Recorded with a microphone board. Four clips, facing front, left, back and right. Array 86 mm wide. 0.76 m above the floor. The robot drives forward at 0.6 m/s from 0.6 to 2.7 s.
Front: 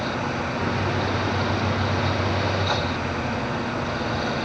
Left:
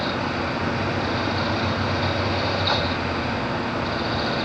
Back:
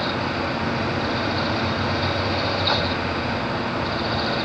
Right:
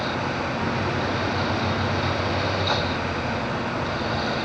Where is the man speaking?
No man speaking in this recording.